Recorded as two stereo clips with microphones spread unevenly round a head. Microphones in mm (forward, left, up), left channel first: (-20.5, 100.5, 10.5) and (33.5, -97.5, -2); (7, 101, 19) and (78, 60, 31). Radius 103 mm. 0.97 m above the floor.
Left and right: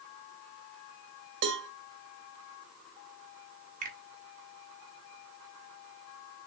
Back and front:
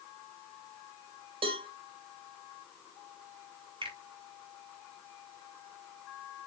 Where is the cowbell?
45° right, 1.9 m.